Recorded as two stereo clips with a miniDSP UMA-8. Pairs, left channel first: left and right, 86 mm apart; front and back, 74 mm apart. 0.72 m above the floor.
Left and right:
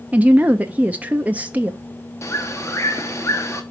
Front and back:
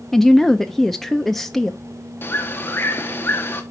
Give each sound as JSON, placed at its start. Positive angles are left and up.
{"t": 0.1, "sound": "a woman speaking", "azimuth_deg": -85, "distance_m": 0.5}
{"t": 2.2, "sound": "a bird", "azimuth_deg": 50, "distance_m": 1.1}